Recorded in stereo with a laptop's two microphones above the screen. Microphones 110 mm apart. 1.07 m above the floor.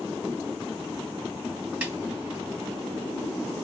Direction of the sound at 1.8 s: 10° right (ahead or behind).